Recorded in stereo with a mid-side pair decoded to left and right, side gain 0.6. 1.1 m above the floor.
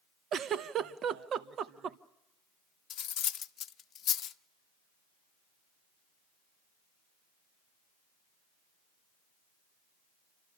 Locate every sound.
0.3 s a giggle: 50° right, 0.8 m
2.9 s cutlery clinking: 45° left, 0.7 m